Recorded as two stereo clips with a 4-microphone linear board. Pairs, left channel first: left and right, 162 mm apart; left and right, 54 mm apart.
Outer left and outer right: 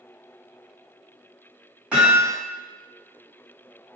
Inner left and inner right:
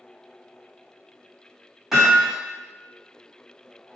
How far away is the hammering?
About 1.5 m.